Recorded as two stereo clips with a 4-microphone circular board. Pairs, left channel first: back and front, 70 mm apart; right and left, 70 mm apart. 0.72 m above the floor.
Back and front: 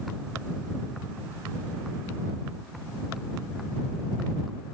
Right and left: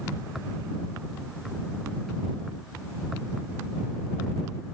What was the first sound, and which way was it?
Only background noise.